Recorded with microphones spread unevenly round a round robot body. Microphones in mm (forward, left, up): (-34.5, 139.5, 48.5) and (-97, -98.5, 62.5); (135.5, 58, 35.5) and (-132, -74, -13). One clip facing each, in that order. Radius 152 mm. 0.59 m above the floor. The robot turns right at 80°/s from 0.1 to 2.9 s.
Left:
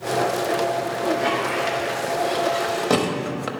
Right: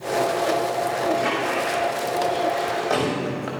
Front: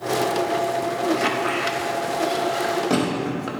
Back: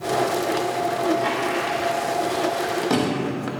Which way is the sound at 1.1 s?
25° right.